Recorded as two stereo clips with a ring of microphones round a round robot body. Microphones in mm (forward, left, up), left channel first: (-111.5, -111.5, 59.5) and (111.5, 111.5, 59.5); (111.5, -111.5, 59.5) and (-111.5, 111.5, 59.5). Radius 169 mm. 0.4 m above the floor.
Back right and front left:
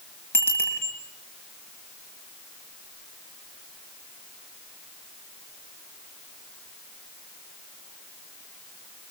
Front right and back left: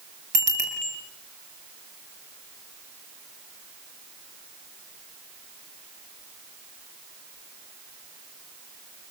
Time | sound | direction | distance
0.3 | a bicycle bell | 140° left | 7.5 m